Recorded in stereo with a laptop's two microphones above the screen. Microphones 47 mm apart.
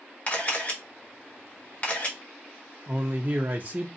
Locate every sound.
0.3 s a camera shutter: 30° left (ahead or behind), 0.8 m
2.9 s a man speaking: 30° right (ahead or behind), 0.6 m